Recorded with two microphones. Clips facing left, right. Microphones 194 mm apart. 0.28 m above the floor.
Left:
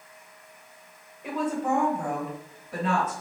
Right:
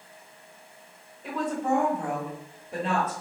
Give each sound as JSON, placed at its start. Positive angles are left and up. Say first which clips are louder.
{"t": 1.2, "sound": "a woman speaking", "louder": "left 1 dB", "side_deg": 15, "distance_m": 1.1}